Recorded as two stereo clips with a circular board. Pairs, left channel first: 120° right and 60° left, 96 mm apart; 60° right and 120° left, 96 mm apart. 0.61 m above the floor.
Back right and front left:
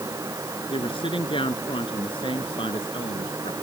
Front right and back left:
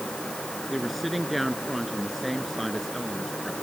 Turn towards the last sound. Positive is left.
turn(degrees=-150)